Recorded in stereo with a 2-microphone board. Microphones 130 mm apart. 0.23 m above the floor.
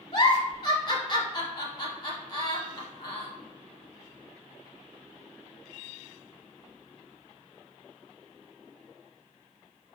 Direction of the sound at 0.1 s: 35° left (ahead or behind).